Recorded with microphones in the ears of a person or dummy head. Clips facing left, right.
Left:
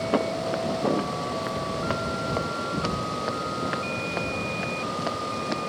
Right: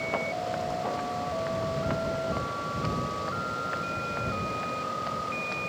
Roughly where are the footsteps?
Left.